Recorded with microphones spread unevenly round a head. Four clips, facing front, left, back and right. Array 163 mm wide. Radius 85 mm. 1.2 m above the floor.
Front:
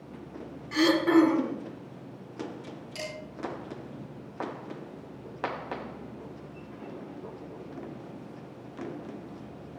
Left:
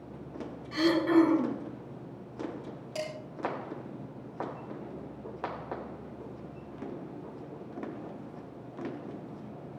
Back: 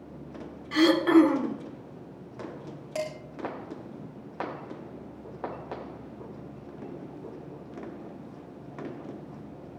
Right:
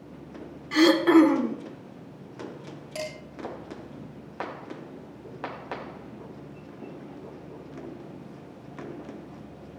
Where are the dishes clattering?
Straight behind, 5 m.